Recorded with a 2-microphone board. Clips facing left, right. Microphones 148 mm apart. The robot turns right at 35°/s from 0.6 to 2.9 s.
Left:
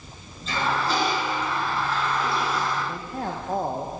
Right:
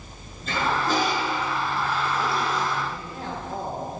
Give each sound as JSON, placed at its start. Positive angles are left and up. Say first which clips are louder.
{"t": 0.5, "sound": "a toilet flushing", "louder": "right 1 dB", "azimuth_deg": -60, "distance_m": 4.0}
{"t": 2.9, "sound": "a man speaking", "louder": "left 3 dB", "side_deg": 50, "distance_m": 1.1}